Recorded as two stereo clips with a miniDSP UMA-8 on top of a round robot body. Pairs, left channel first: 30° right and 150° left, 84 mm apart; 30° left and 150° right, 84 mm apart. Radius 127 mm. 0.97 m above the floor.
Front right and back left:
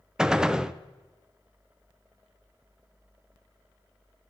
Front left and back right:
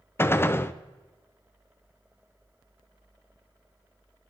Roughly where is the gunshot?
Left.